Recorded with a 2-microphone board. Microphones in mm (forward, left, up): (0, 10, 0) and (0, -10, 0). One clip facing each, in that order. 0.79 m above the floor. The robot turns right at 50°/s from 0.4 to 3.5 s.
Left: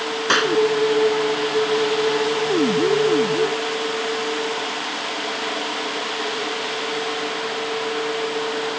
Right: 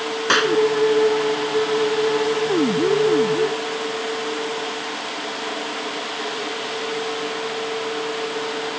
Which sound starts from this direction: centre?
A clap, at 0.3 s.